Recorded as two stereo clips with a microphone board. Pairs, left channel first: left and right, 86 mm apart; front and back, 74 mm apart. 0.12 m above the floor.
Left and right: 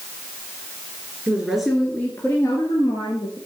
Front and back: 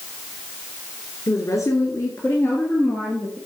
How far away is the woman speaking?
About 1.9 m.